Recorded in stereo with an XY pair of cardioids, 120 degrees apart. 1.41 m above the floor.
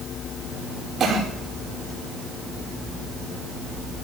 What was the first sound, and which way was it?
A cough, 50° right.